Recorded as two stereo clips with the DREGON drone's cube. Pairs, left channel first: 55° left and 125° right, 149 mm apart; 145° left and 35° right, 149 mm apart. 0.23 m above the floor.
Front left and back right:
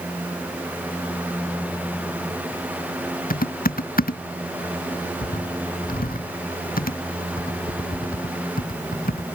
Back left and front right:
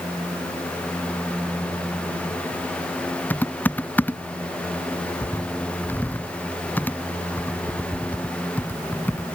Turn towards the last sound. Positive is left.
turn(degrees=70)